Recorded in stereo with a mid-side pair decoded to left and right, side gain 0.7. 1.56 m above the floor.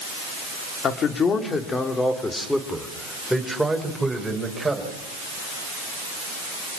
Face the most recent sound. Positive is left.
turn(degrees=-10)